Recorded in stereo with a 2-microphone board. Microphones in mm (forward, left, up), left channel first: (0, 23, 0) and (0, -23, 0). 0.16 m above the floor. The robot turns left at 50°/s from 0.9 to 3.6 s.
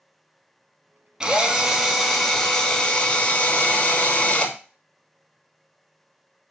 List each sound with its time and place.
1.2 s a drill: 20° right (ahead or behind), 0.7 m; by 4.5 s 25° left (ahead or behind), 0.7 m